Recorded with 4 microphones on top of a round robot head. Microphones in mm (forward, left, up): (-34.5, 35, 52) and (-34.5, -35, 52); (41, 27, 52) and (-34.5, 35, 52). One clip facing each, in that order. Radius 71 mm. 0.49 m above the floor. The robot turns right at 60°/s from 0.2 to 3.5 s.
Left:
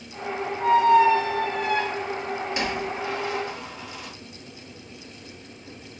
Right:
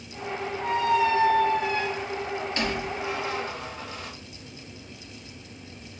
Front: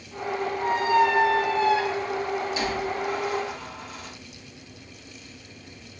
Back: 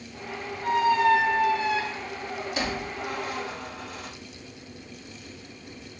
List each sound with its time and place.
0.6 s a squeak: 45° left, 0.9 m; by 4.1 s 140° right, 0.9 m